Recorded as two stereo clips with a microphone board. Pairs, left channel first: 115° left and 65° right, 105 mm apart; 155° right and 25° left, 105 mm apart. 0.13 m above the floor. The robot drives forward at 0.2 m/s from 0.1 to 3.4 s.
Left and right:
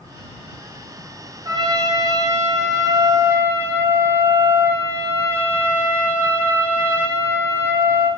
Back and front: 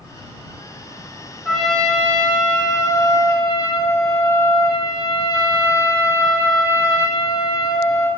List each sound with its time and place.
1.4 s a trumpet: 70° right, 0.7 m; by 8.1 s 125° right, 0.7 m